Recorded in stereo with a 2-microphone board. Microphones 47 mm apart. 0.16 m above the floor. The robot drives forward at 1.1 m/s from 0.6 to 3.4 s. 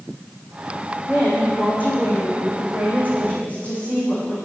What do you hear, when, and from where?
1.1 s a woman speaking: 45° left (ahead or behind), 7 m; by 4.4 s 30° left (ahead or behind), 9 m